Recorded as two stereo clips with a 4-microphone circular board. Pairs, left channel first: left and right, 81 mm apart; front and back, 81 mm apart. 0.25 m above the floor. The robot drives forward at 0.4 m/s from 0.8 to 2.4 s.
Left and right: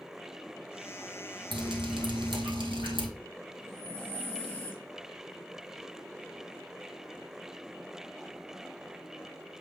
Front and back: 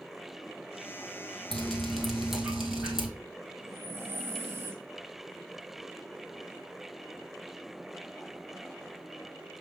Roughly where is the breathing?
Behind left.